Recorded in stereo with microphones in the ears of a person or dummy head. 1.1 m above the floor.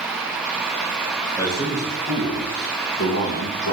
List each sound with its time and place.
1.4 s a man speaking: 10° left (ahead or behind), 0.9 m; by 3.7 s 70° left (ahead or behind), 1.4 m